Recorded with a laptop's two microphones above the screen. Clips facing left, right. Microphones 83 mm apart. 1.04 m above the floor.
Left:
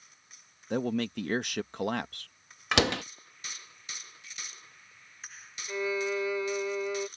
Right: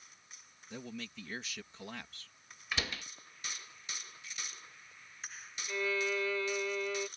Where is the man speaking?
65° left (ahead or behind).